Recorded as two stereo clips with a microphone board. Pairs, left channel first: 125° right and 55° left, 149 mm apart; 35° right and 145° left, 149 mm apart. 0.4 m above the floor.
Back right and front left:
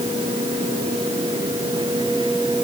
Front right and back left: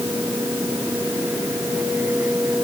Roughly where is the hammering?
I don't hear hammering.